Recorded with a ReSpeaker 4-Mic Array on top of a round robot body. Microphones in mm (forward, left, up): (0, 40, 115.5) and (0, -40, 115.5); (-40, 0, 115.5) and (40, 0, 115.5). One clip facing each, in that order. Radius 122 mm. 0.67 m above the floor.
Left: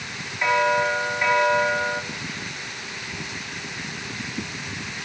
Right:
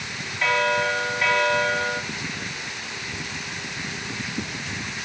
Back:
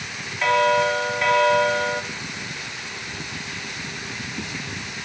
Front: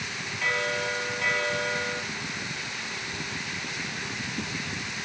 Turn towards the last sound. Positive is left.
turn(degrees=160)